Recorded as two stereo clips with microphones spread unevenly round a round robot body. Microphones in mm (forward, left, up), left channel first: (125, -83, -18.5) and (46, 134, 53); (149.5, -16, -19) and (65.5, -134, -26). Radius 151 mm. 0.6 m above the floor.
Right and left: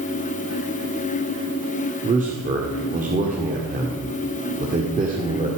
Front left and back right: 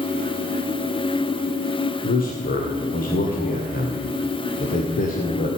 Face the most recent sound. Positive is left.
turn(degrees=45)